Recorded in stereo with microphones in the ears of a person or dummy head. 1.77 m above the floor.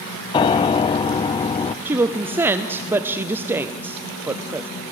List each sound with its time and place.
0.3 s a piano: 25° left (ahead or behind), 0.5 m
1.9 s a woman speaking: 15° right (ahead or behind), 0.7 m